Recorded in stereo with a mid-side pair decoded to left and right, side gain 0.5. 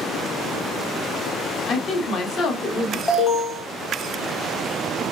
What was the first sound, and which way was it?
A woman speaking, 55° left.